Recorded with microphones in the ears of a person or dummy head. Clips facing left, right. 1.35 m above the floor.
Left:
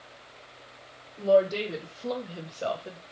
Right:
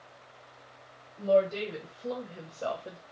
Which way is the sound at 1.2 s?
85° left.